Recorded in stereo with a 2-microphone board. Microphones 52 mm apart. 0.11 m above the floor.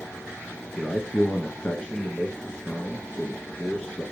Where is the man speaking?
15° left (ahead or behind), 1.4 m.